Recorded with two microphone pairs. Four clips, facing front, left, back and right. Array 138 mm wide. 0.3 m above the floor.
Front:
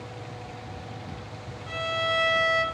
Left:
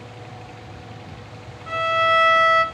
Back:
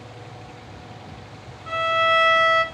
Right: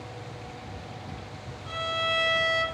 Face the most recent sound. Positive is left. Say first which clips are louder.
# left 11 dB, back 8 dB
turn(degrees=140)